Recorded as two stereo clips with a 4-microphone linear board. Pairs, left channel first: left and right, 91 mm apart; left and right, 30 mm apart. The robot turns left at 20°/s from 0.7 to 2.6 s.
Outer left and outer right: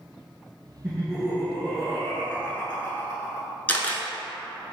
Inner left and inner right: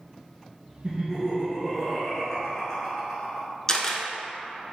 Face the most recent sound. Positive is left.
turn(degrees=20)  # may be behind; listen again after turning